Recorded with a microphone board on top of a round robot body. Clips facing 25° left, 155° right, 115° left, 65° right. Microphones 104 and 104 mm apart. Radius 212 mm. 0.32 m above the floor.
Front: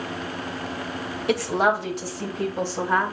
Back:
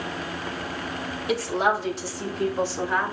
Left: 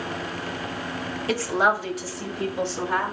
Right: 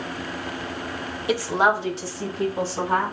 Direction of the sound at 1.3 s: 5° left.